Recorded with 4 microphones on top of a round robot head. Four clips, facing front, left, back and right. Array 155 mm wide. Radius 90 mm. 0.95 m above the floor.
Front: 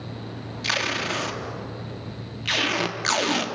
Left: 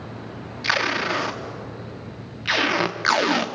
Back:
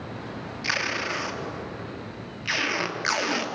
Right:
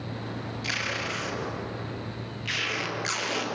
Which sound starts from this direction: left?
Tape being pulled, at 0.6 s.